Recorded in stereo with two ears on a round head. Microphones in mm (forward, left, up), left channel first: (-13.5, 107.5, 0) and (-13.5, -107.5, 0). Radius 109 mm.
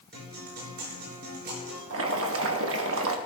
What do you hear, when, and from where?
0.1 s a guitar: 45° right (ahead or behind), 6.5 m
1.9 s boiling: 60° right (ahead or behind), 1.3 m